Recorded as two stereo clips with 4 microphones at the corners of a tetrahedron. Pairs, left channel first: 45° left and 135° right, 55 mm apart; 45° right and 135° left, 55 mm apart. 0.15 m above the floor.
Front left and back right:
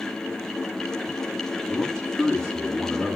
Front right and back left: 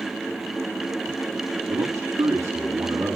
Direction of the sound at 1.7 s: 125° left.